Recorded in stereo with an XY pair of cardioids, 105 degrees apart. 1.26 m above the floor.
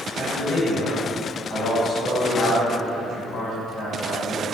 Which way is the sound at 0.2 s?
70° left.